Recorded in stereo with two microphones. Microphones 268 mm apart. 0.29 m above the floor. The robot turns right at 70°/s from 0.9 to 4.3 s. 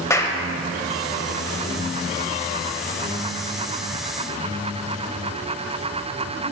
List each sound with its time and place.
0.1 s a clap: 10° left (ahead or behind), 0.8 m